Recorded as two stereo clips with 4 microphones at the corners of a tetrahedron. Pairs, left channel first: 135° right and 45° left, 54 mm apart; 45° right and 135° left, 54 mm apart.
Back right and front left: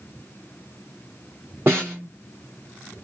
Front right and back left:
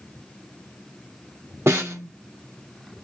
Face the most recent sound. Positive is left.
turn(degrees=90)